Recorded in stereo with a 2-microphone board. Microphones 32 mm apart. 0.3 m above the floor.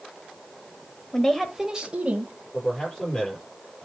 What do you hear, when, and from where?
1.1 s a woman speaking: 25° left (ahead or behind), 1.2 m; by 2.3 s 50° right (ahead or behind), 1.7 m
2.5 s a man speaking: 25° left (ahead or behind), 7.5 m